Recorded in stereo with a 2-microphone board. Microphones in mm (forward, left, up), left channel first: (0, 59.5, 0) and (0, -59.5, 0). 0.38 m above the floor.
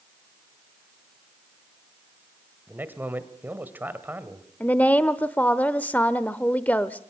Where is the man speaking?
15° right (ahead or behind), 1.9 m.